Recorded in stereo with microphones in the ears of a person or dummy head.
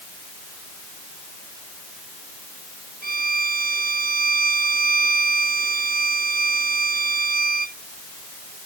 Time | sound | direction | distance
3.0 | a violin | 45° right (ahead or behind) | ?